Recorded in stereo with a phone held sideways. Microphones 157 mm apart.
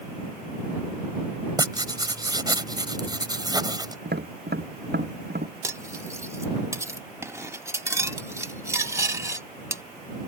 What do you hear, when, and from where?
1.6 s writing: 25° right (ahead or behind)
4.0 s tapping: 85° right
5.6 s cutlery clinking: 15° right (ahead or behind)